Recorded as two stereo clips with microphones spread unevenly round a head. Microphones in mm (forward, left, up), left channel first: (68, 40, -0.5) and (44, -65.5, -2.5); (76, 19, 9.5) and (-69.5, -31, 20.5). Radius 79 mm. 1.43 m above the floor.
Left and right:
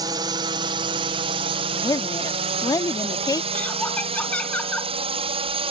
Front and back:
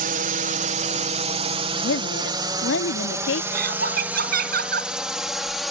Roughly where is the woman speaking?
Ahead.